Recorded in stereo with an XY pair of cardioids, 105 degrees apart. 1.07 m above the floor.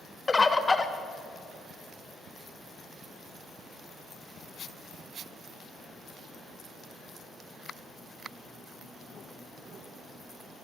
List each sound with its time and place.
0.3 s a bird: 25° left, 1.0 m